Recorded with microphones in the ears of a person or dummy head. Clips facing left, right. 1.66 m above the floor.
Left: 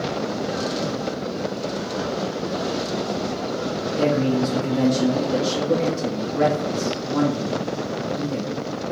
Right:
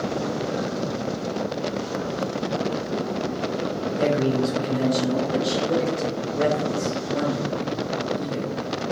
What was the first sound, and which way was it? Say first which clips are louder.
A man speaking: left 2 dB; 80° left.